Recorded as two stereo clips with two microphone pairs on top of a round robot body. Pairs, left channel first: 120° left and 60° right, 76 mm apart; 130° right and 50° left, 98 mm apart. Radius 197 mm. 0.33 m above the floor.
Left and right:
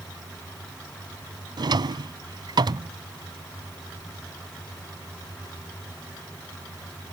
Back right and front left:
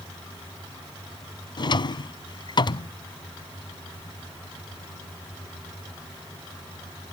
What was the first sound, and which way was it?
A drawer, 90° right.